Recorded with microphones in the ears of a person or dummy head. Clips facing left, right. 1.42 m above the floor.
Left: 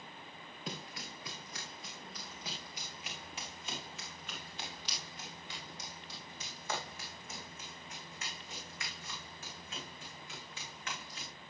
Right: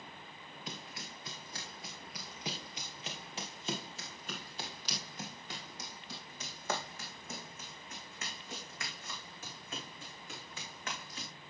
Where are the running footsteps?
20° left (ahead or behind), 1.4 m; by 11.3 s 40° right (ahead or behind), 6.5 m.